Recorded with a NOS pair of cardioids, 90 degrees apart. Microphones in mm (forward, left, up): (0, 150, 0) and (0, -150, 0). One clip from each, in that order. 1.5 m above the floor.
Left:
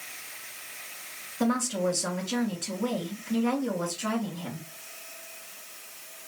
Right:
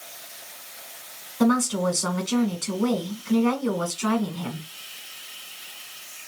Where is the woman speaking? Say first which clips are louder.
Right 5 dB; 55° right, 1.3 m.